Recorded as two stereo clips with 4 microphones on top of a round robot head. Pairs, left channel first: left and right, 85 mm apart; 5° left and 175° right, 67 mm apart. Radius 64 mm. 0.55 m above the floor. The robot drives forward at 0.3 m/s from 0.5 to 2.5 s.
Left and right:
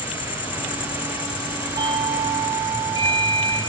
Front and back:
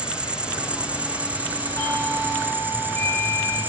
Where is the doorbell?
60° right, 6.5 m.